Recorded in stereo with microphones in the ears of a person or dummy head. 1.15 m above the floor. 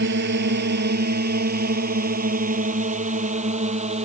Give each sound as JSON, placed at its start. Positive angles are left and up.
{"t": 0.0, "sound": "a drone", "side_deg": -65}